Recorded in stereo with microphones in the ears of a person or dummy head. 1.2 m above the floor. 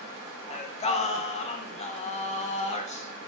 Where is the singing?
30° left (ahead or behind), 0.7 m.